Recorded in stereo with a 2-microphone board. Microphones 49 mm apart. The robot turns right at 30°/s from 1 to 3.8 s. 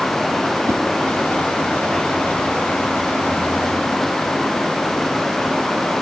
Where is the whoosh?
60° right (ahead or behind), 1.1 m.